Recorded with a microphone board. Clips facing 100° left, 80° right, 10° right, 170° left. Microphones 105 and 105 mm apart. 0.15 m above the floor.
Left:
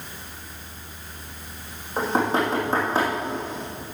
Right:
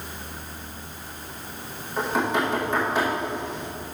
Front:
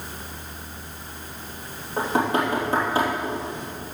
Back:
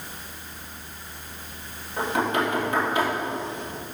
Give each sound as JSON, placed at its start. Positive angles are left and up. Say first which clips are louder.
{"t": 2.0, "sound": "knocking", "louder": "left 2 dB, front 2 dB", "azimuth_deg": 45, "distance_m": 3.0}